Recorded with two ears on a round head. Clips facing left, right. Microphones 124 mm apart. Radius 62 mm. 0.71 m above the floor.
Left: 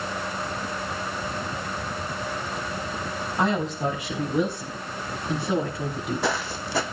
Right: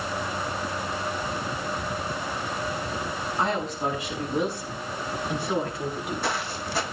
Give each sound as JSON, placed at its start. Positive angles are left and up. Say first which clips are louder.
{"t": 3.4, "sound": "a woman speaking", "louder": "left 3 dB", "side_deg": 65, "distance_m": 5.5}
{"t": 5.8, "sound": "footsteps", "louder": "left 2 dB", "side_deg": 60, "distance_m": 1.8}